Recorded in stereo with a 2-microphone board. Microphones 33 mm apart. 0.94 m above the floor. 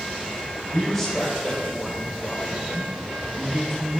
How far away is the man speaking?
About 3.5 m.